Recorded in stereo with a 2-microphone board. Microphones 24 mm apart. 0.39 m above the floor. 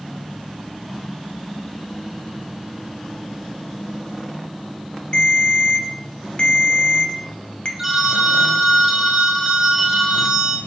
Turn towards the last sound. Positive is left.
turn(degrees=-15)  # may be behind; listen again after turning